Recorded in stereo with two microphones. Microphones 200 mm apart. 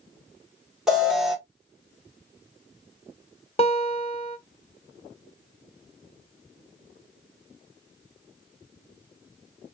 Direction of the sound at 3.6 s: 30° left (ahead or behind).